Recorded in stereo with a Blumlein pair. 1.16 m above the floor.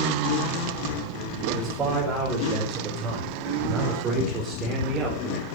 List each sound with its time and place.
1.5 s a man speaking: 25° right, 6 m; by 5.5 s 20° right, 3.5 m